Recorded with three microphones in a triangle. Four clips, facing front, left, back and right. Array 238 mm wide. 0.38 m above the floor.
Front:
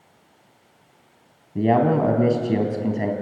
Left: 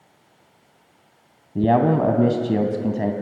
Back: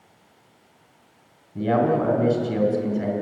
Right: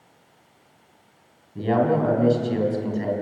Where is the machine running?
I don't hear a machine running.